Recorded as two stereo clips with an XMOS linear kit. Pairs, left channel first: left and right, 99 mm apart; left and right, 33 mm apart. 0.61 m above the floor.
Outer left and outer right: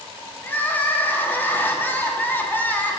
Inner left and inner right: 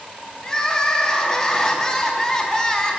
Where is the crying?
20° left (ahead or behind), 0.8 m.